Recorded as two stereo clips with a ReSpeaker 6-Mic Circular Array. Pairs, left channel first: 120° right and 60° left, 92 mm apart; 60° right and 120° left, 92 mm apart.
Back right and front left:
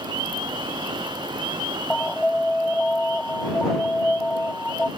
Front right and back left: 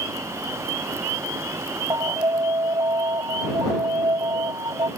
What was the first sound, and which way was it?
An alarm, 160° left.